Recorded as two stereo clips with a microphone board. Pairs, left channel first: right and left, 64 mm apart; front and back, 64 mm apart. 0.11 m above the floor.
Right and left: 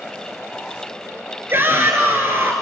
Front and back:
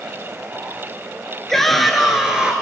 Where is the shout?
80° left, 1.7 m; by 2.5 s 115° left, 1.8 m.